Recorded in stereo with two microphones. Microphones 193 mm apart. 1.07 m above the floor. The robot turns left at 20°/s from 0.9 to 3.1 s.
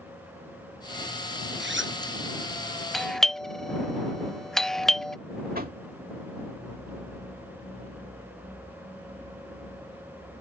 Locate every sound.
1.6 s a zipper: 70° right (ahead or behind); by 2.0 s 80° right
2.9 s a doorbell: centre (ahead or behind)
5.5 s knocking: 50° right (ahead or behind)